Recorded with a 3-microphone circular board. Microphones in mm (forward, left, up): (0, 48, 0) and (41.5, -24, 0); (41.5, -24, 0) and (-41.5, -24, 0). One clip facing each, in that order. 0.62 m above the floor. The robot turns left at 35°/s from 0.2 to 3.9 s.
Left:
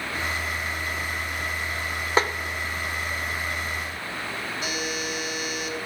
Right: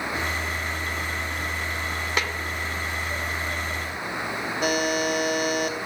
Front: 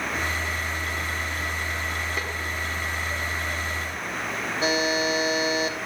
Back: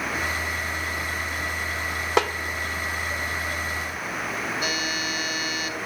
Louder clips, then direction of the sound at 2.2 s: Left 6 dB, back 10 dB; 175° left.